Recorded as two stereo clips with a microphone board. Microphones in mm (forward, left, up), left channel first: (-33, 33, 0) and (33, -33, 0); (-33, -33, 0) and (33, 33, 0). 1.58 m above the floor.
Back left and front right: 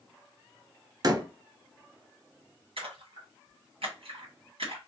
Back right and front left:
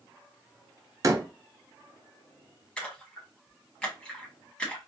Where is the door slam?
5° right, 0.6 m.